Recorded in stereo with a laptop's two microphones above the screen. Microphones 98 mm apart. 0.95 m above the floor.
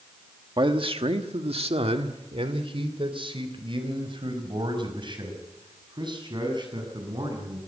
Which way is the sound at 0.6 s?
50° right (ahead or behind).